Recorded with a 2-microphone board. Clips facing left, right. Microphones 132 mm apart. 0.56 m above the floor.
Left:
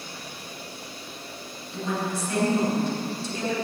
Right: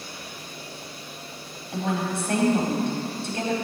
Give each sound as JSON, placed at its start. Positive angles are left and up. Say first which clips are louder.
{"t": 1.7, "sound": "a woman speaking", "louder": "right 2 dB", "side_deg": -60, "distance_m": 4.5}